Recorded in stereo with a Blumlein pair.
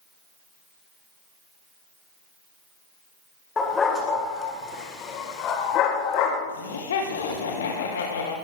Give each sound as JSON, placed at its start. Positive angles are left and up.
{"t": 3.6, "sound": "a dog barking", "azimuth_deg": 15, "distance_m": 3.5}
{"t": 6.5, "sound": "laughter", "azimuth_deg": 65, "distance_m": 1.9}